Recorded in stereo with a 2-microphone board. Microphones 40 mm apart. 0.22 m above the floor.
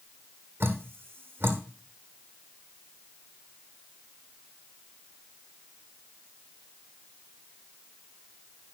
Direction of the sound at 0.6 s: 65° right (ahead or behind).